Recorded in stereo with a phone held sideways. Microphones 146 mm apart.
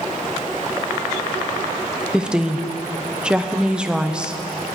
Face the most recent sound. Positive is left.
turn(degrees=-5)  # may be behind; listen again after turning